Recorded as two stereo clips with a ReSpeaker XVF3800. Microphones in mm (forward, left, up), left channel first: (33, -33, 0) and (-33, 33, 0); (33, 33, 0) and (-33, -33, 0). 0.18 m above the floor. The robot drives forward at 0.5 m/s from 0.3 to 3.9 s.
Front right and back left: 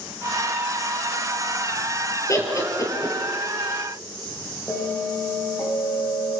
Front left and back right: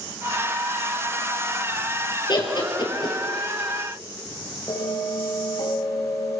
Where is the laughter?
10° left, 3.5 m.